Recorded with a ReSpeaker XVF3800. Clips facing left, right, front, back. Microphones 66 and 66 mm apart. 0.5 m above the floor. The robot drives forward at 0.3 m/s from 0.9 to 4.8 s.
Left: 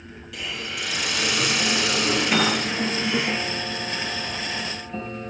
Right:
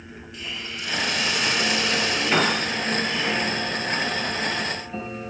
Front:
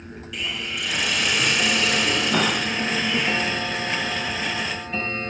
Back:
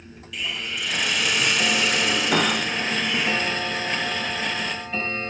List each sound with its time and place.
0.3 s a hiss: 90° left, 9.5 m; by 3.3 s 95° left, 9.5 m
2.3 s a piano: 170° right, 9 m